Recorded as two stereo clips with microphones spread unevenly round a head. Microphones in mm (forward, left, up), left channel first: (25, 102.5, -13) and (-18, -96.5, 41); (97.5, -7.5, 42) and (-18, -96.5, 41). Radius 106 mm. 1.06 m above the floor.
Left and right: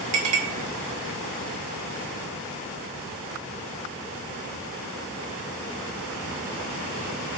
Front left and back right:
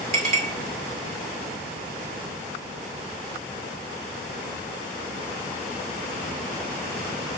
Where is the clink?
120° right, 2.5 m.